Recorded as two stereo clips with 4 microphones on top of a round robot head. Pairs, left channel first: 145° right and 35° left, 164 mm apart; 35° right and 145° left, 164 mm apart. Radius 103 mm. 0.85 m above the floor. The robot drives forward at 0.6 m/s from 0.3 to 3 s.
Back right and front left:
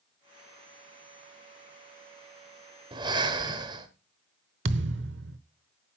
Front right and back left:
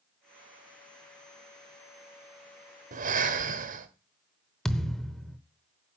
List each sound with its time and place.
2.9 s breathing: 100° left, 1.6 m
4.7 s a thud: 50° left, 0.8 m